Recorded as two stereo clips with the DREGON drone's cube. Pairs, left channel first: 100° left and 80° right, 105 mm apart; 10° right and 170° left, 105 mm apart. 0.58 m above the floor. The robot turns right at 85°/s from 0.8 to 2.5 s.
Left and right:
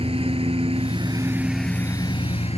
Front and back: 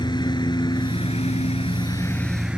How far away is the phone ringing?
No phone ringing in this recording.